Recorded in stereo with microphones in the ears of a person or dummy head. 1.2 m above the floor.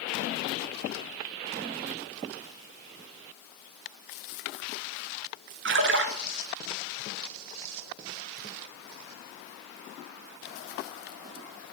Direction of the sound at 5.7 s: 55° right (ahead or behind).